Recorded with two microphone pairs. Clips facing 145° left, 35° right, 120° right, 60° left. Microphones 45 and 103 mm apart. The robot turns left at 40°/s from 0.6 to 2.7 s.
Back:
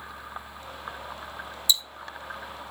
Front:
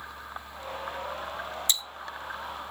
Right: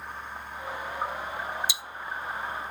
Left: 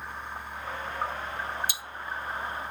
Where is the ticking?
10° left, 0.5 m; by 1.8 s 5° left, 0.5 m.